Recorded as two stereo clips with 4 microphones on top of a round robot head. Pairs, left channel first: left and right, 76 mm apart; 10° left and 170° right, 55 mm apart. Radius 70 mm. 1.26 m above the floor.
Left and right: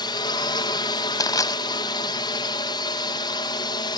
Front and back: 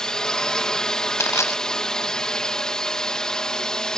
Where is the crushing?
45° left.